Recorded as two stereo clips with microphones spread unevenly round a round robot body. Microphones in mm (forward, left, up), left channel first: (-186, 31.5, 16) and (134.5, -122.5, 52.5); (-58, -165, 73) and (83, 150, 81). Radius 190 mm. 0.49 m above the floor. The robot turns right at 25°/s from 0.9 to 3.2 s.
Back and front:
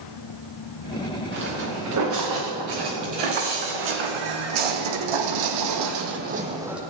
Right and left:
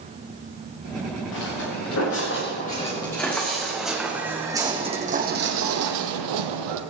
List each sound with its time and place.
1.3 s footsteps: 85° right, 5 m; by 6.8 s 60° left, 1.5 m